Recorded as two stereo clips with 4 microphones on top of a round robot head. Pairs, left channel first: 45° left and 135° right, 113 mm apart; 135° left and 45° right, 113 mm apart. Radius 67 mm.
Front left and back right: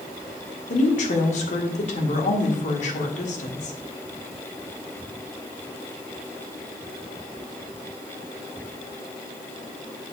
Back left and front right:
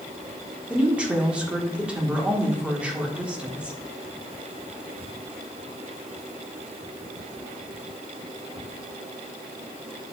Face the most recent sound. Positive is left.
turn(degrees=35)